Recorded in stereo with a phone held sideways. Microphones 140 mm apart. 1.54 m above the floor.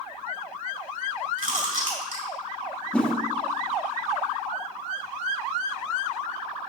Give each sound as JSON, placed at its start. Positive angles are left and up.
{"t": 1.4, "sound": "chewing", "side_deg": -70, "distance_m": 4.0}
{"t": 2.9, "sound": "a whoosh", "side_deg": 10, "distance_m": 2.0}